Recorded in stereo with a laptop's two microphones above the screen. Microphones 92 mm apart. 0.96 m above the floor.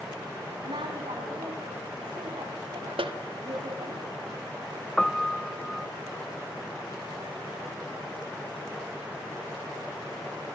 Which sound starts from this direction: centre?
A piano, at 5.0 s.